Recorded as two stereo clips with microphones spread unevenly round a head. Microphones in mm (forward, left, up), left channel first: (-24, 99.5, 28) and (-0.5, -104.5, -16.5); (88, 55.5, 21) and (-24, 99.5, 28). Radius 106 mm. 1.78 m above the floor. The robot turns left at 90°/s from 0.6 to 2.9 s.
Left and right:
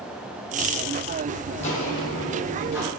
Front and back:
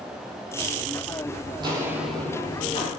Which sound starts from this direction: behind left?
Footsteps, at 1.6 s.